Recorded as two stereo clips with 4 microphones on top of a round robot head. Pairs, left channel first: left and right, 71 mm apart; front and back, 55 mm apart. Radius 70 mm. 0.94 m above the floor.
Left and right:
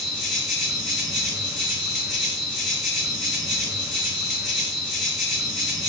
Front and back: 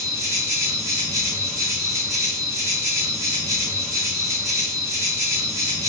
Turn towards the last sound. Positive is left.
turn(degrees=180)